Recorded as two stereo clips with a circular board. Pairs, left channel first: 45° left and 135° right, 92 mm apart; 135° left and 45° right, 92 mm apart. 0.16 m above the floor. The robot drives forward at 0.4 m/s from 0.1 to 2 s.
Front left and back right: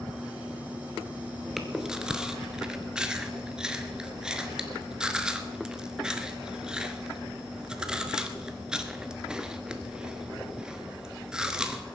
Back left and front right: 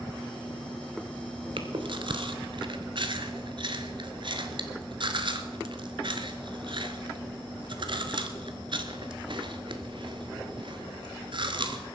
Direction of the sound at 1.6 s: 50° right.